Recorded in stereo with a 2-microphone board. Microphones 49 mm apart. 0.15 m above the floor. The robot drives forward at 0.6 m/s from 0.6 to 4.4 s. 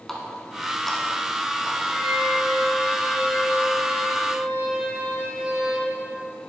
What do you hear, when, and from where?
0.1 s a running tap: 5° left (ahead or behind), 1.0 m
1.9 s a violin: 5° right (ahead or behind), 2 m